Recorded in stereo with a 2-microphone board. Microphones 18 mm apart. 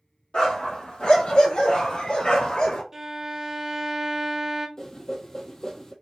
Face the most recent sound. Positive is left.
turn(degrees=30)  # may be behind; listen again after turning